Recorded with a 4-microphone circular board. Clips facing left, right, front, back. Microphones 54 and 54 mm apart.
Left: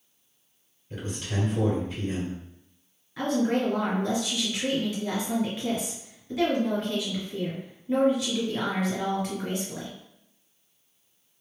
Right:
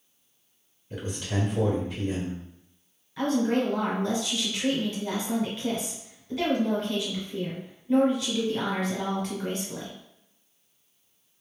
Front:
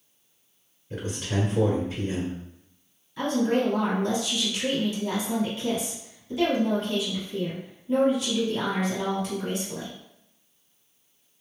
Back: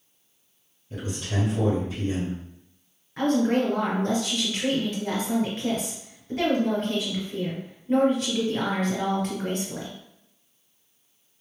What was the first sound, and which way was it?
A man speaking, 15° right.